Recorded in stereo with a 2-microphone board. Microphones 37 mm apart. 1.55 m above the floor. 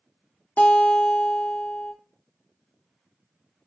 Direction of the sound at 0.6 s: 70° left (ahead or behind).